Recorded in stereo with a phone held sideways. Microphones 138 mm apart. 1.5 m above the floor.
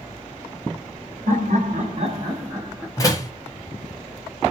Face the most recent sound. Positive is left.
turn(degrees=25)  # may be behind; listen again after turning